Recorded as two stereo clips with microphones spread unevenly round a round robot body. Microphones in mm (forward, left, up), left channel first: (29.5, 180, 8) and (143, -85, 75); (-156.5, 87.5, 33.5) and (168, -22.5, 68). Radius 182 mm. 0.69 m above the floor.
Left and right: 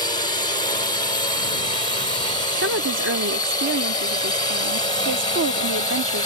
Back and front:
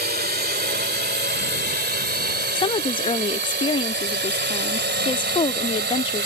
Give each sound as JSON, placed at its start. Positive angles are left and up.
{"t": 0.0, "sound": "a drone", "azimuth_deg": 45}
{"t": 2.5, "sound": "a woman speaking", "azimuth_deg": -125}